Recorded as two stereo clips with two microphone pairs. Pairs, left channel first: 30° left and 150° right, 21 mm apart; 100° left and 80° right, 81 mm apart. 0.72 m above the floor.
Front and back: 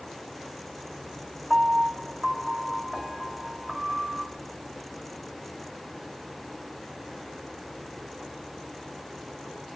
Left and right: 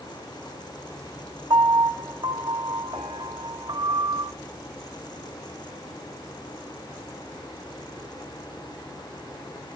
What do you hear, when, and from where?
1.5 s a piano: 80° right, 1.1 m